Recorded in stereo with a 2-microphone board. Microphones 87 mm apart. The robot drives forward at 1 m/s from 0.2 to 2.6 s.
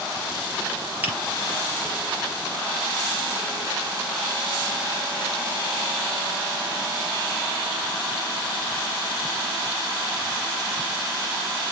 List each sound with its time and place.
1.0 s a finger snap: 20° right (ahead or behind), 3 m